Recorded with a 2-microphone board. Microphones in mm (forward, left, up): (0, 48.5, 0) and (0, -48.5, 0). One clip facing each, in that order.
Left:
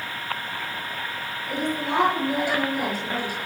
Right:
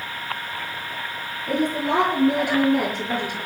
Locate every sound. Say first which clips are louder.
1.5 s a woman speaking: right 5 dB; 50° right (ahead or behind), 6.5 m; by 3.4 s 55° right (ahead or behind), 8 m